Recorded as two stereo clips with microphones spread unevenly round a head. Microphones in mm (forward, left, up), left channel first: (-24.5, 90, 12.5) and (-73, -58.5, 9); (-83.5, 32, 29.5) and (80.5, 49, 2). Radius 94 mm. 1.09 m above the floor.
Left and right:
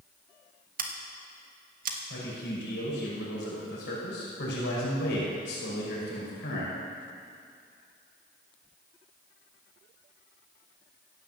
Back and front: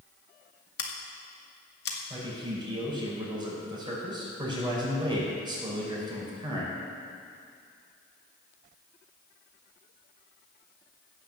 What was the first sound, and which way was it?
Scissors, 135° right.